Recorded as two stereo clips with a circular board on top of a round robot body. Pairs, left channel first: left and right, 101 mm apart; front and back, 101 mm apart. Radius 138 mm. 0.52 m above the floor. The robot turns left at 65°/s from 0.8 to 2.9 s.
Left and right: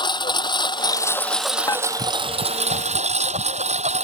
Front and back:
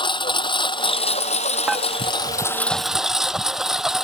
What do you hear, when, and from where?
0.0 s a lawn mower: 45° left; by 4.0 s 95° right
1.7 s dishes clattering: 100° left; by 1.9 s 90° left